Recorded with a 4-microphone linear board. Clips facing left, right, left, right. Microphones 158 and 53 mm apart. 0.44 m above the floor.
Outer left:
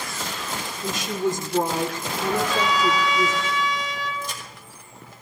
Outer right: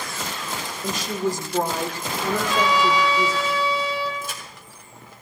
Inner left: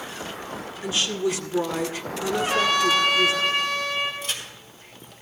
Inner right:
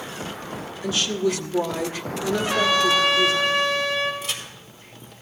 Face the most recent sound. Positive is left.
turn(degrees=-5)  # may be behind; listen again after turning